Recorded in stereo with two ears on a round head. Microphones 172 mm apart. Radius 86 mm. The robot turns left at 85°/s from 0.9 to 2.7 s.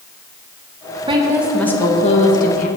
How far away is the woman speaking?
About 1.1 m.